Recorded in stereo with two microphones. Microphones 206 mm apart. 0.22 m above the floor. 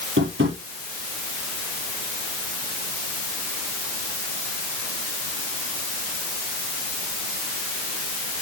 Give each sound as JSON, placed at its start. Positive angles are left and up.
{"t": 0.2, "sound": "tapping", "side_deg": -75, "distance_m": 6.5}